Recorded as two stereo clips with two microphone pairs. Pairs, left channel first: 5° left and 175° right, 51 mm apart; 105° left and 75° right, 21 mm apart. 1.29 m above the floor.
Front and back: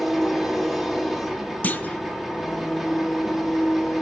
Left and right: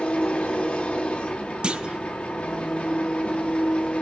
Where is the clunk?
45° right, 1.1 m.